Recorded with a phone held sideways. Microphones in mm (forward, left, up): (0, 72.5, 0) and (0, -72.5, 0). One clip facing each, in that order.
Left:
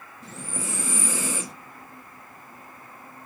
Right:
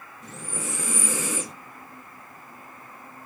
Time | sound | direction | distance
0.2 | breathing | 30° left (ahead or behind) | 1.3 m